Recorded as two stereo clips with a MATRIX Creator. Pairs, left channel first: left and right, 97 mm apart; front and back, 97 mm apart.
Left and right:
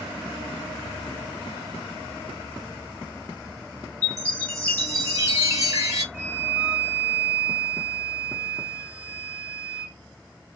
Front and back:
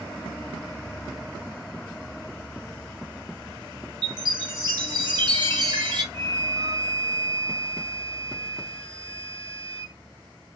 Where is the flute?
85° right, 1.6 m.